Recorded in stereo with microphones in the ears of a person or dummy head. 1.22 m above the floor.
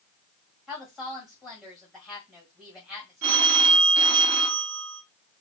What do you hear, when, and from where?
0.7 s a woman speaking: centre (ahead or behind), 1.7 m
3.2 s a phone ringing: 65° right (ahead or behind), 0.6 m